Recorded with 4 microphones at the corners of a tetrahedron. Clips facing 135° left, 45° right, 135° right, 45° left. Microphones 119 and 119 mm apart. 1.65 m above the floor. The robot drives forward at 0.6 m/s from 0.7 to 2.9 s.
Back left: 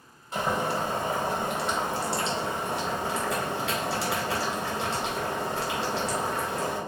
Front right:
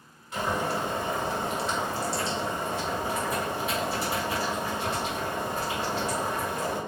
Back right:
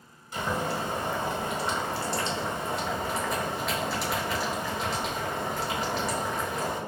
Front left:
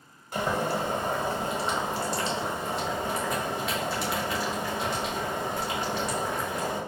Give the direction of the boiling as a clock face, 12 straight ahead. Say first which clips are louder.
Back left 1 dB, front left 2 dB; 9 o'clock.